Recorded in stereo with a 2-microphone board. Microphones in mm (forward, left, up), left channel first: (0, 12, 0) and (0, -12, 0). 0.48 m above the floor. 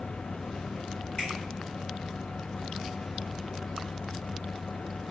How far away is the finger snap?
About 1.8 m.